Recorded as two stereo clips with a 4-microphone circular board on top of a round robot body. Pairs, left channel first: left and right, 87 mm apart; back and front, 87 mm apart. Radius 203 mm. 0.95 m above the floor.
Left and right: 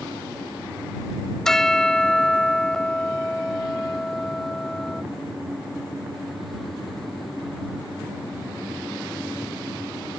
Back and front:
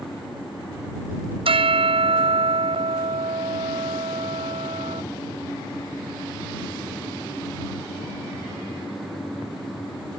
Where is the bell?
5° left.